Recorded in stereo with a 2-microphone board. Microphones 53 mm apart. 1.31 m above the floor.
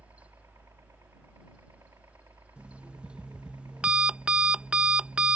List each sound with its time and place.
0.0 s a helicopter: 65° right (ahead or behind)
2.6 s an alarm clock: 20° right (ahead or behind)